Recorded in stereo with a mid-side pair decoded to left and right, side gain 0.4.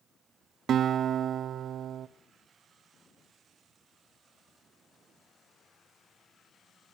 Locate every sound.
0.7 s a guitar: 65° right, 0.8 m